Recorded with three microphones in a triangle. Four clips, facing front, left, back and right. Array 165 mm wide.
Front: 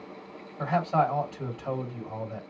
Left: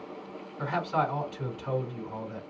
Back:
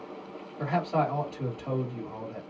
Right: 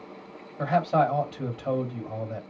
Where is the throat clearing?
I don't hear throat clearing.